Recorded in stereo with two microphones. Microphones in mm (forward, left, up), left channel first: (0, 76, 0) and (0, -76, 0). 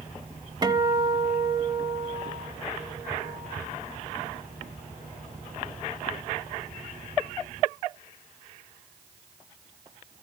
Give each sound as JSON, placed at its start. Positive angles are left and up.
{"t": 0.6, "sound": "a guitar", "side_deg": -25, "distance_m": 1.1}